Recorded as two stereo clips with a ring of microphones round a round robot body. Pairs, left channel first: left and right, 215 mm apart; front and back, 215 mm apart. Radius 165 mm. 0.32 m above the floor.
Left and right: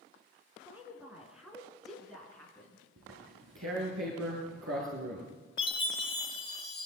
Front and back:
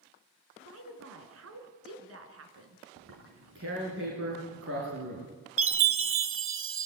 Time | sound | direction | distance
0.6 | a woman speaking | 170° right | 4 m
3.0 | tearing paper | 135° right | 10 m
5.6 | a chime | 165° left | 1.4 m